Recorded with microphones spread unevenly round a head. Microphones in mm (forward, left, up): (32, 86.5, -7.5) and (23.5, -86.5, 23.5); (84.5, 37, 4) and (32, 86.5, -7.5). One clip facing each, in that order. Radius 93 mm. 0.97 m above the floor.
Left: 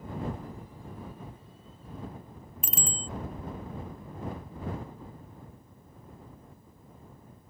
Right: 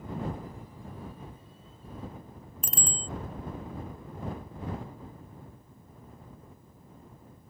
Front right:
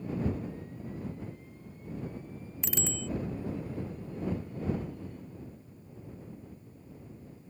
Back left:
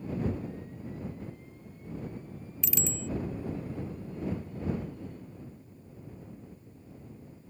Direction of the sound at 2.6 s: Straight ahead.